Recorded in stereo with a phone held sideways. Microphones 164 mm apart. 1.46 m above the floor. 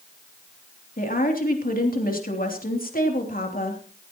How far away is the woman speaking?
About 3 m.